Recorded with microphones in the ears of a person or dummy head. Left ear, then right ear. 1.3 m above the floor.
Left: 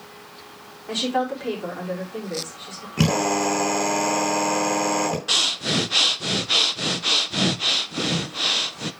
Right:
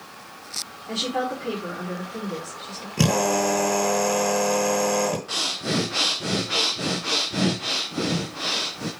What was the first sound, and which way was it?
A woman speaking, 65° left (ahead or behind).